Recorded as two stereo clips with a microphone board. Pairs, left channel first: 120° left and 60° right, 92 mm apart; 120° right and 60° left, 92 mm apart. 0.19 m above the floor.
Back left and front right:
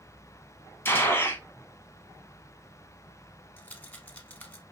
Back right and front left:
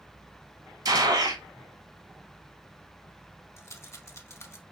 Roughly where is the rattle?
Behind.